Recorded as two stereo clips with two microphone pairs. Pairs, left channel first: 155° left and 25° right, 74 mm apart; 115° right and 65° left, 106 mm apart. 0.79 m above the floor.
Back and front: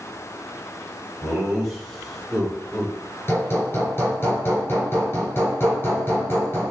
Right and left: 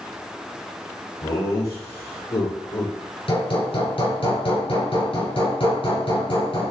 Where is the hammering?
150° right, 4 m.